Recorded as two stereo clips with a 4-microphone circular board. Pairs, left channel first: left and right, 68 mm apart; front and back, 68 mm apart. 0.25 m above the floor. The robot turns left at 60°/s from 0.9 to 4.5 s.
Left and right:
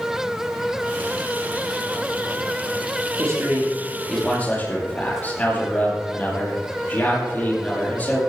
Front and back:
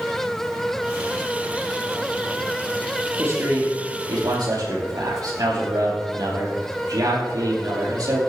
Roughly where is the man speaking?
Behind right.